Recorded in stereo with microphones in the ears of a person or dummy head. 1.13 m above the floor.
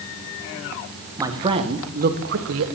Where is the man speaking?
15° right (ahead or behind), 1.9 m; by 2.7 s 75° right (ahead or behind), 1.7 m.